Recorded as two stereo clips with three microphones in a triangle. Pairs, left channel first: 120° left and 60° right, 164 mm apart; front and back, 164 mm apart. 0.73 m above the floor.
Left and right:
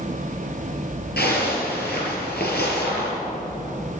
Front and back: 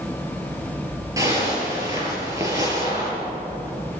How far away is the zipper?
About 4.5 m.